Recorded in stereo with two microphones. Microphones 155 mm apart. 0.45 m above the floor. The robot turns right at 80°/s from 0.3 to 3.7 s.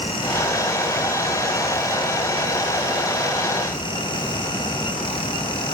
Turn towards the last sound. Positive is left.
No sound to turn to.